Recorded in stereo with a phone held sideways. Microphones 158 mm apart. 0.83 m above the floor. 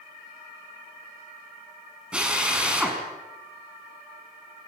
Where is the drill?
5° right (ahead or behind), 6 m.